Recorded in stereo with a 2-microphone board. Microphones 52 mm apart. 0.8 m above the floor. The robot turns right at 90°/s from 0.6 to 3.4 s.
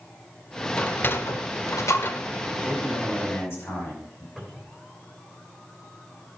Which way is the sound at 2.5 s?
20° right.